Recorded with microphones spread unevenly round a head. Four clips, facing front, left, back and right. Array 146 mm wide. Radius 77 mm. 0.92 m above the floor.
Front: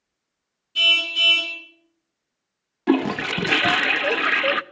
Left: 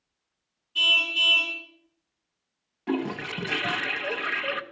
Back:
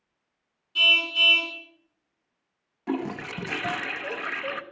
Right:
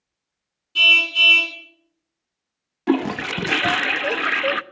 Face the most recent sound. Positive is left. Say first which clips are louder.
# right 8 dB, front 9 dB
turn(degrees=-30)